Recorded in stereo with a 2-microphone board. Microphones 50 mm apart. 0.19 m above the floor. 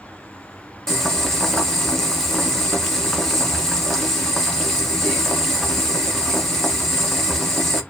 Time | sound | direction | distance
0.9 | boiling | 5° left (ahead or behind) | 0.9 m